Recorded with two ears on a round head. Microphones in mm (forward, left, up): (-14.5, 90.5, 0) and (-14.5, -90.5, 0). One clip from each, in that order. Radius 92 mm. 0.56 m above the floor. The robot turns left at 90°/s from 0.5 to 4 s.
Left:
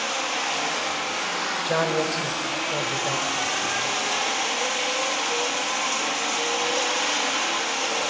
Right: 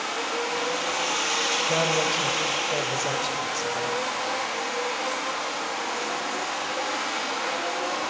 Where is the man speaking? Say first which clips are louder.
Even; 40° left (ahead or behind), 2.5 m; by 4.0 s 15° right (ahead or behind), 2.5 m.